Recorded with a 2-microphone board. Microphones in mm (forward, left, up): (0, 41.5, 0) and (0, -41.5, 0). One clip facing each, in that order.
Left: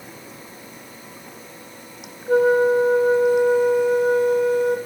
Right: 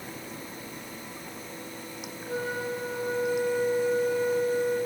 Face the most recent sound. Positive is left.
turn(degrees=70)  # may be behind; listen again after turning